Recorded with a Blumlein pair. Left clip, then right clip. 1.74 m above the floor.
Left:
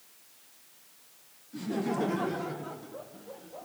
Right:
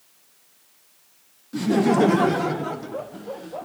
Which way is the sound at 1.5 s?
60° right.